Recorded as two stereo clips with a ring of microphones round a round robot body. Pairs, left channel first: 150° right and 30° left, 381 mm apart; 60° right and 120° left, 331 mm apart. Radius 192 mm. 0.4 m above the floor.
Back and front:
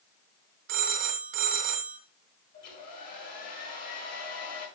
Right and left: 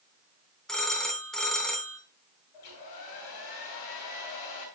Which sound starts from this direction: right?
A hair dryer, at 2.5 s.